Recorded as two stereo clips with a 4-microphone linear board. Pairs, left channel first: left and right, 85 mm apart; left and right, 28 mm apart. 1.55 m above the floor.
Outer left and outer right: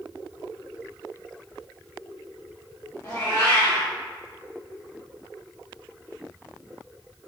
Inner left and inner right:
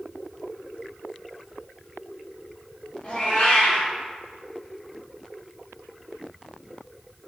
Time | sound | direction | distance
3.0 | a cat meowing | 45° left (ahead or behind) | 1.4 m